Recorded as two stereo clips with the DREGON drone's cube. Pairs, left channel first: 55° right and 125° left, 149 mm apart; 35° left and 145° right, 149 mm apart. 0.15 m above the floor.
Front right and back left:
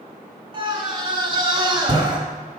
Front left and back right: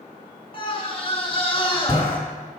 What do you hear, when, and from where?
0.5 s a scream: 75° left, 1.7 m